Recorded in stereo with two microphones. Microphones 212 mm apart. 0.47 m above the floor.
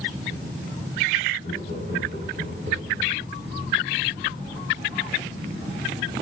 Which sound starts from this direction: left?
Laughter, at 1.4 s.